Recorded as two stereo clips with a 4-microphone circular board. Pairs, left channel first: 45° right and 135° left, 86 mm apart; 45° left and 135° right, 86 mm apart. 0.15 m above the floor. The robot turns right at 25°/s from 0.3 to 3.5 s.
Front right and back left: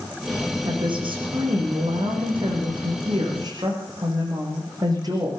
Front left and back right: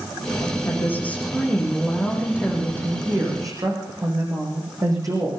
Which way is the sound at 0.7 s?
105° left.